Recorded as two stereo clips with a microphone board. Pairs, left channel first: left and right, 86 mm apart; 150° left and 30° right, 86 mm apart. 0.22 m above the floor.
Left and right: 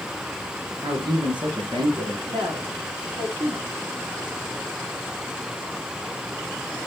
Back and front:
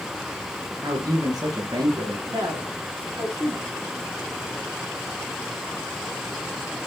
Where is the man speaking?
70° right, 3.5 m.